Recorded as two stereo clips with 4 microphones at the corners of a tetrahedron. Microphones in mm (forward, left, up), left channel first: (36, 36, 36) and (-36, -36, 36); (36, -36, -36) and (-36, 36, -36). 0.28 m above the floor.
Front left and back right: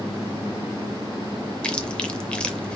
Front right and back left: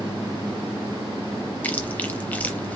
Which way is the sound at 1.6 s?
15° right.